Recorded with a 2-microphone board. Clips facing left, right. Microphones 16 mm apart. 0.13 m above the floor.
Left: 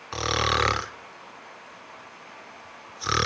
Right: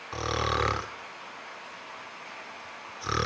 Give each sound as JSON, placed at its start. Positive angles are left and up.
{"t": 0.1, "sound": "snoring", "side_deg": 45, "distance_m": 0.5}